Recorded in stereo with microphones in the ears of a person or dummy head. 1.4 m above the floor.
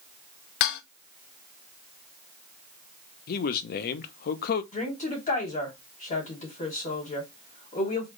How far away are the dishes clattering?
About 0.6 m.